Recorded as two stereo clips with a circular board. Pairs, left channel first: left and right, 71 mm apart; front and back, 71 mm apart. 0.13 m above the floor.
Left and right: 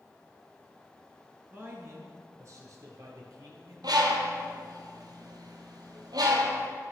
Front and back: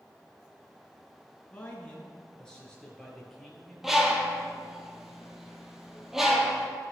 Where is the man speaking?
60° right, 2.0 m; by 3.7 s 85° right, 3.5 m.